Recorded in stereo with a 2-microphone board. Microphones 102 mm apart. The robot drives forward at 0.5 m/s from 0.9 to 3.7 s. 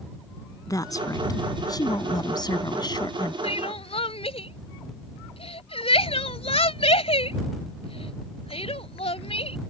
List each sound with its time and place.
0.7 s a woman speaking: 35° left (ahead or behind); by 3.3 s 45° left (ahead or behind)
3.4 s crying: 70° left (ahead or behind); by 9.6 s 65° left (ahead or behind)